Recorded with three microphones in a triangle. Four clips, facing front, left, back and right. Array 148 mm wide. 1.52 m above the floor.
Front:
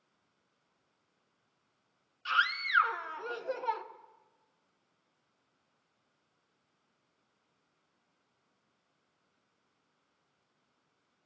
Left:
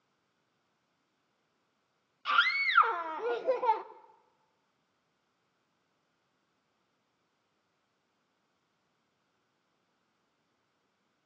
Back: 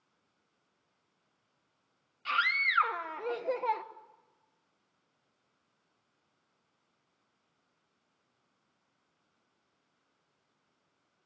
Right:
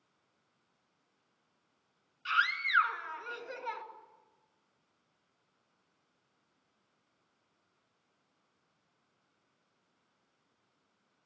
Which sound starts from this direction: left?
A scream, at 2.2 s.